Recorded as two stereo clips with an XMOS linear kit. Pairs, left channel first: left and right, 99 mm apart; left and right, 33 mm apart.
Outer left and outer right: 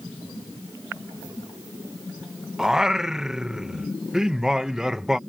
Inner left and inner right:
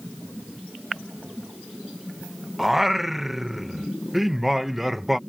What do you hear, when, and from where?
2.6 s singing: 5° right (ahead or behind)